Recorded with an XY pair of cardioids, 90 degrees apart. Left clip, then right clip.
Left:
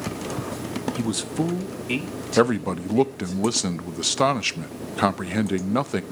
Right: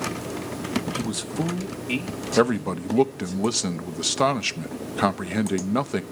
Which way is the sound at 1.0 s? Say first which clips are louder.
Left 2 dB; 25° left.